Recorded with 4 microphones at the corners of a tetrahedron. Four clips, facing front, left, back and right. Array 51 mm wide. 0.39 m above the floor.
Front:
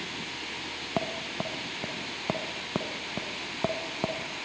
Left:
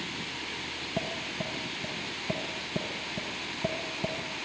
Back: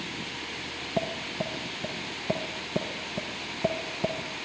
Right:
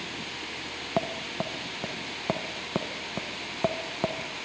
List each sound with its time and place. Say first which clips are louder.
1.0 s tapping: right 5 dB, back 1 dB; 55° right, 1.3 m